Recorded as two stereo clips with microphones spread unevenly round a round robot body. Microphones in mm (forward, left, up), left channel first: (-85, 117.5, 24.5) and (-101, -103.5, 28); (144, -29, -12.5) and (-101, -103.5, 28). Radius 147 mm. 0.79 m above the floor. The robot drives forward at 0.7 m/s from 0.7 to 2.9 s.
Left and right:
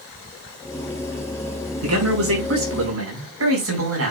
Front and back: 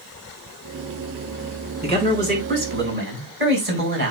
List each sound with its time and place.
1.8 s a man speaking: 105° right, 5 m; by 4.1 s 115° right, 5.5 m